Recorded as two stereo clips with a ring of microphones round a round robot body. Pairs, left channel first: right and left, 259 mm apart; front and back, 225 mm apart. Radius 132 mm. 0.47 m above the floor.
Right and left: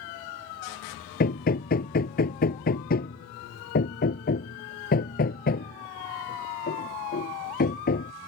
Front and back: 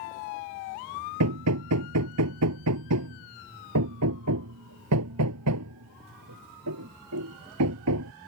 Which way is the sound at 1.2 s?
150° right.